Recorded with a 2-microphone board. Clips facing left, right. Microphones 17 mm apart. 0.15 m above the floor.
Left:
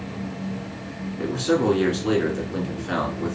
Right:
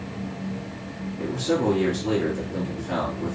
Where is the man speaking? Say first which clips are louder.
Left 2 dB; 40° left (ahead or behind), 1.6 m.